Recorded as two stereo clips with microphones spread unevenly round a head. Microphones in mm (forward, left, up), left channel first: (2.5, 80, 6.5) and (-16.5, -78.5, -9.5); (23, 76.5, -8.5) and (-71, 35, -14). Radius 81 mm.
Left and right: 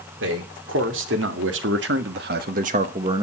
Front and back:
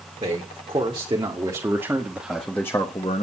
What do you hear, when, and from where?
0.2 s a man speaking: 100° right, 2.5 m; by 3.2 s 30° right, 0.9 m